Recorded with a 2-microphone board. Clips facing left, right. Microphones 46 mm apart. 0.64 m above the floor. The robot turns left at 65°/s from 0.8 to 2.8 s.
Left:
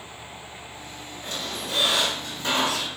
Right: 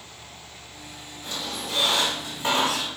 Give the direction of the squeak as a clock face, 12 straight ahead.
10 o'clock.